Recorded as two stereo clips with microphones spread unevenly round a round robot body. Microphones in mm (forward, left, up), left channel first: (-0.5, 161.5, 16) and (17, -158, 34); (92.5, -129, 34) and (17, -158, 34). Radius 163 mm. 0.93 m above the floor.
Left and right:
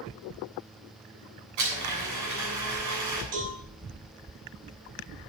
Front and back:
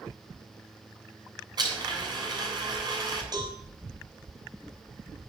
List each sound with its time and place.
1.6 s a blender: 125° right, 7.5 m
3.3 s a cowbell: 120° right, 5 m